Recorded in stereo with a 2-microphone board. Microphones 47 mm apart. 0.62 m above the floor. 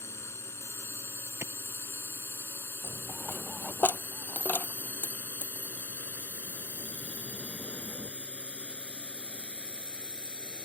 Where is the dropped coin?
40° left (ahead or behind).